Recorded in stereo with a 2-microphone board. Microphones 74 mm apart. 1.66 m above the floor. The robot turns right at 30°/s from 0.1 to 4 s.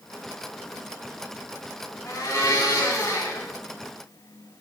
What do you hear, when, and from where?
2.0 s a blender: 80° left, 2.5 m; by 3.5 s 120° left, 2.5 m